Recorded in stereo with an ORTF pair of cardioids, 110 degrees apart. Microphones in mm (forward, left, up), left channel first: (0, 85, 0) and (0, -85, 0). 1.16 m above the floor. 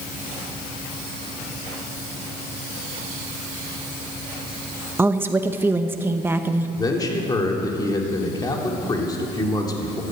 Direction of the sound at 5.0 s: 15° right.